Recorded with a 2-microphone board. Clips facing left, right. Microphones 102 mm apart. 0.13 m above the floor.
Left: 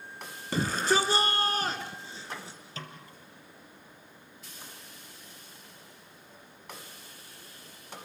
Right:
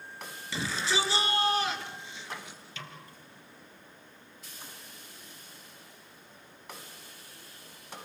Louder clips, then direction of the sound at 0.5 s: Left 5 dB; 45° left (ahead or behind).